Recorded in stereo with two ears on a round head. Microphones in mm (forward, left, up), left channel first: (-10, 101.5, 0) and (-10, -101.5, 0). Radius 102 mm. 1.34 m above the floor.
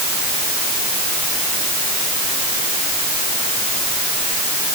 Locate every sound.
Only background noise.